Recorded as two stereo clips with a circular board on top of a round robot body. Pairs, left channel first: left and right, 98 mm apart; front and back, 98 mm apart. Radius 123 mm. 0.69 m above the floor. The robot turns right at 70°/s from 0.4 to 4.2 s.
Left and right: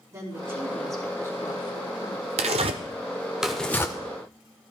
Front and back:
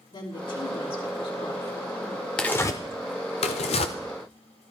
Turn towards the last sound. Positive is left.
turn(degrees=45)